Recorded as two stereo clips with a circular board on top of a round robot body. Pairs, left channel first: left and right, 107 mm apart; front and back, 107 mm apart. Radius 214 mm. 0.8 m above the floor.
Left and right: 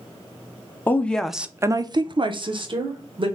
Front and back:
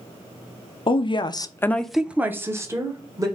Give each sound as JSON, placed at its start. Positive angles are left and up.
{"t": 0.9, "sound": "a woman speaking", "azimuth_deg": 20, "distance_m": 0.7}